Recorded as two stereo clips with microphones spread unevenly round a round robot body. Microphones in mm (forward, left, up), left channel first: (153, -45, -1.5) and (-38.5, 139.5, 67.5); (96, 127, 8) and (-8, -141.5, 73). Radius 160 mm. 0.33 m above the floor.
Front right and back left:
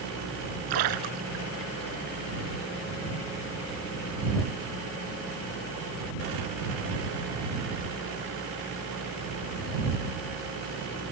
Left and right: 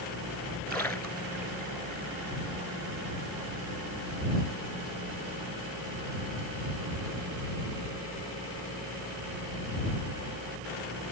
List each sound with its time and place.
0.7 s a splash: 155° left